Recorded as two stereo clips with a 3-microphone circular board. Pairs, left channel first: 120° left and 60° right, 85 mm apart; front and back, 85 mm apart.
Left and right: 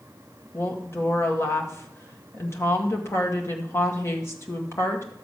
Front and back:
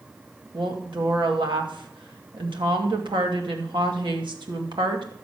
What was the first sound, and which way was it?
A woman speaking, 175° left.